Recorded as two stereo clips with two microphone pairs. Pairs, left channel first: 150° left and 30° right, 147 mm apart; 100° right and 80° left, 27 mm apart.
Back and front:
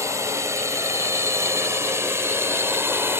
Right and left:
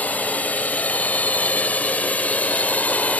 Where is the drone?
100° right; by 3.2 s 105° right.